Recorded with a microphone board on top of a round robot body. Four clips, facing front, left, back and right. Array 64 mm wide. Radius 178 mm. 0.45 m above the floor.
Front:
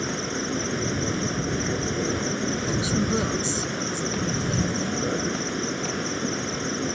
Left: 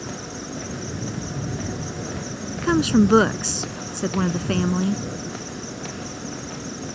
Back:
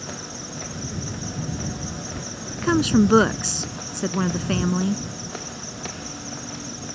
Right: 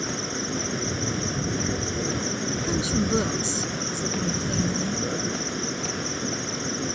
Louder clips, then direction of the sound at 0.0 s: Right 3 dB, front 7 dB; 30° right.